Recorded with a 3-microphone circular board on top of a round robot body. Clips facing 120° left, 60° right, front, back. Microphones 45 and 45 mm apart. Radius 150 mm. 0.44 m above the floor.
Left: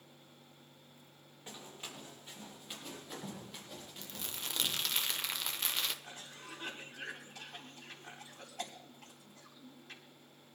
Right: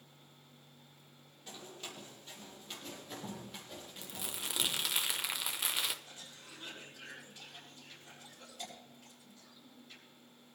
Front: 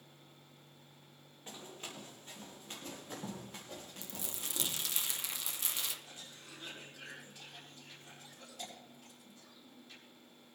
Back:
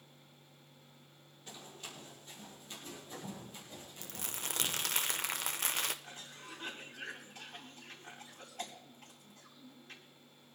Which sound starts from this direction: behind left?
A cough, at 6.0 s.